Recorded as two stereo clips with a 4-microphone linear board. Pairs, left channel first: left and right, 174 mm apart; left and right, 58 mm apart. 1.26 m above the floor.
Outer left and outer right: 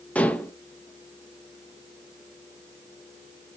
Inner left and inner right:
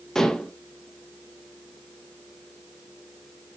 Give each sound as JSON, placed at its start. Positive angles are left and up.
{"t": 0.1, "sound": "dishes clattering", "side_deg": 10, "distance_m": 0.9}